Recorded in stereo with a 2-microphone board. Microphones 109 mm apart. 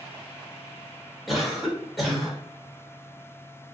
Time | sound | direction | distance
1.3 | a cough | centre (ahead or behind) | 1.2 m